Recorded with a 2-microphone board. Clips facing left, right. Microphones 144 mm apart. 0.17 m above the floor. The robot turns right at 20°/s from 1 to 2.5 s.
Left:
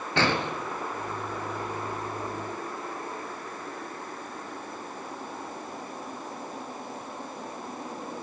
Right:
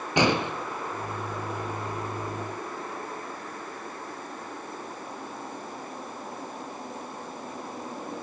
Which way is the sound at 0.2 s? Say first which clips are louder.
Right 3 dB; 15° right (ahead or behind).